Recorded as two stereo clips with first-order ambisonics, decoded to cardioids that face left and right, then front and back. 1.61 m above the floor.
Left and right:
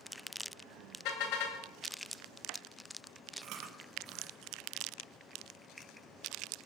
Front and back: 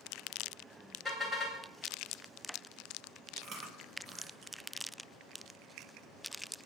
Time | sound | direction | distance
1.1 | a car horn | 95° left | 3 m
3.4 | chewing | 130° right | 2.5 m